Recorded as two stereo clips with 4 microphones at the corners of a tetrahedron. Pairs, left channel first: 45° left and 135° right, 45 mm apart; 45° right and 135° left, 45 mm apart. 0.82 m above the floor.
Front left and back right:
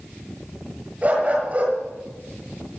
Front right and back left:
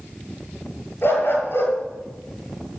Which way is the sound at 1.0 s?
80° right.